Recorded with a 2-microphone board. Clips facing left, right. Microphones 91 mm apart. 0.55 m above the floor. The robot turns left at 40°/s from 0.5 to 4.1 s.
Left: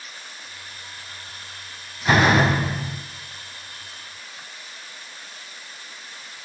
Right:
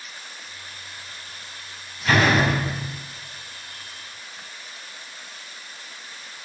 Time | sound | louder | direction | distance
2.0 | a door slam | left 2 dB | 155° left | 2 m